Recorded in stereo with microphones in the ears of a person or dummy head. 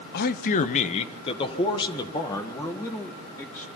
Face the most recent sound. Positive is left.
turn(degrees=10)  # may be behind; listen again after turning